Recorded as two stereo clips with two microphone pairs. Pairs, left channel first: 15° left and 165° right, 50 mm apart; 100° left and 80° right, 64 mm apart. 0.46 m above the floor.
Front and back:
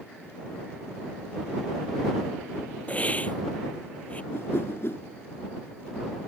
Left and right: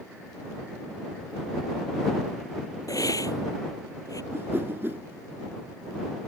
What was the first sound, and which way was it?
A hiss, 75° left.